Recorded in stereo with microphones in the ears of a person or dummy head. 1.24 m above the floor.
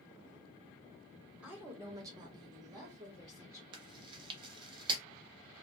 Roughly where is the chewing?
Right.